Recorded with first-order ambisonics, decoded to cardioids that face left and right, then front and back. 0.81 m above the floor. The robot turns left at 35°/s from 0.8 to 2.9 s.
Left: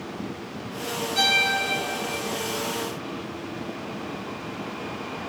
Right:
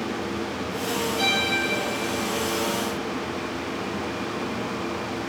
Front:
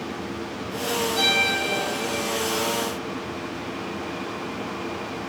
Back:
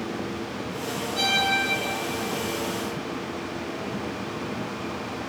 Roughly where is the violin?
Left.